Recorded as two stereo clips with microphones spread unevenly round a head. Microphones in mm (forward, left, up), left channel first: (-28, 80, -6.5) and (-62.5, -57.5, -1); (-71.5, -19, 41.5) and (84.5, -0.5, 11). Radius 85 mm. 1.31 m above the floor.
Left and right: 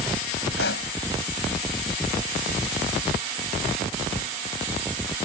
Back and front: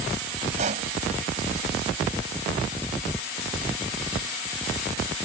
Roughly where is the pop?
Ahead left.